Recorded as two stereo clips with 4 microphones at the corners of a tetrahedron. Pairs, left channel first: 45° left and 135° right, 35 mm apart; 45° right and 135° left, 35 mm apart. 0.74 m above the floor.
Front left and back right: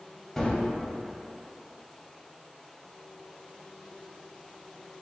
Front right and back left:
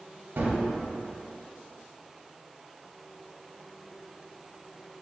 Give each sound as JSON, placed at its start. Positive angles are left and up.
{"t": 0.4, "sound": "a gunshot", "azimuth_deg": 125, "distance_m": 0.8}